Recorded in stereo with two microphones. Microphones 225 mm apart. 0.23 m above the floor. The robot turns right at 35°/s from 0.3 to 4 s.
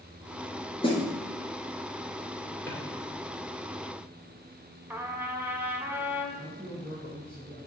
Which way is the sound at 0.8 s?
25° left (ahead or behind).